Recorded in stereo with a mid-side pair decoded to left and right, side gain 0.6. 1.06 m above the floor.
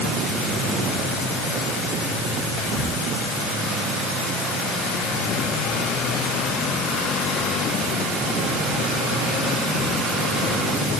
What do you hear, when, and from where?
2.6 s whispering: 60° left, 3.5 m